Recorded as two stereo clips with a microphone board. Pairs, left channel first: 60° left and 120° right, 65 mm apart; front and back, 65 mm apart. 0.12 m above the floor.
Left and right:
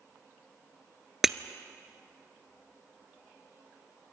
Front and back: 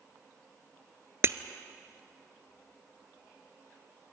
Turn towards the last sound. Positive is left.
turn(degrees=155)